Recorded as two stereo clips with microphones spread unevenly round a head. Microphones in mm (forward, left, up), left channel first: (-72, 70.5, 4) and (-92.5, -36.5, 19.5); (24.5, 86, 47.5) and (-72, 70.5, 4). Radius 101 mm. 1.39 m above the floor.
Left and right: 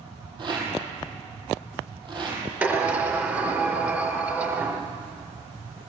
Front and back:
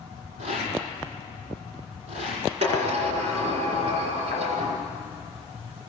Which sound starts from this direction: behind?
A sliding door, at 2.6 s.